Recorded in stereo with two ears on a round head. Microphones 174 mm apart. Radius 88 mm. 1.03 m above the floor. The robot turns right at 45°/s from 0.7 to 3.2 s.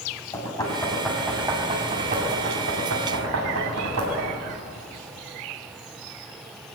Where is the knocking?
20° left (ahead or behind), 5 m; by 4.4 s 85° right, 5 m.